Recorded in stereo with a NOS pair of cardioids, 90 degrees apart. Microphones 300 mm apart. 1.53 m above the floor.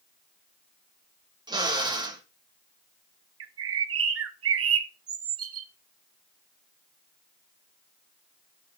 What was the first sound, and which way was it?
A drill, 15° right.